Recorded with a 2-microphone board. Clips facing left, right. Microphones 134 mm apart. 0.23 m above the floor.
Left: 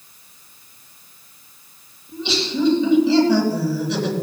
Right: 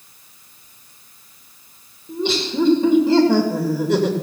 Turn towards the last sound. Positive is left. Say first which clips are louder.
# right 3 dB
turn(degrees=-50)  # may be behind; listen again after turning